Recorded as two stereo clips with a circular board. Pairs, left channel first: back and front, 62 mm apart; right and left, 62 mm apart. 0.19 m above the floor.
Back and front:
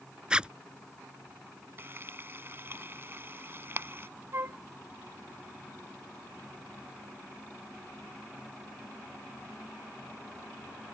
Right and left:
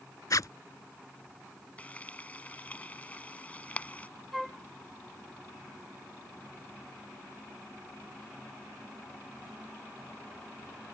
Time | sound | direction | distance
0.3 | a zipper | 75° right | ?
1.8 | frying | 35° right | ?
4.3 | a flute | straight ahead | ?